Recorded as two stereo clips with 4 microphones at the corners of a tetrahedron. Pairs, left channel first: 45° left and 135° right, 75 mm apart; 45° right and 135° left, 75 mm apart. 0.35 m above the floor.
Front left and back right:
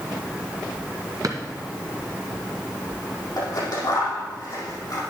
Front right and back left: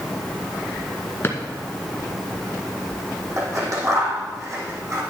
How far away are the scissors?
About 4.5 m.